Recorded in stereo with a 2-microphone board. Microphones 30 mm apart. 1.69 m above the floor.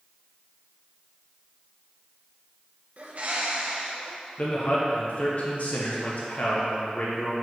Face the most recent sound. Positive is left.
turn(degrees=50)  # may be behind; listen again after turning